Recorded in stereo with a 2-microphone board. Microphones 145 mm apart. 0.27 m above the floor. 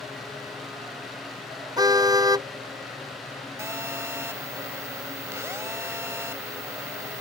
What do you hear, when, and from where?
1.8 s a car horn: 25° right (ahead or behind)
3.6 s a phone buzzing: 20° right (ahead or behind)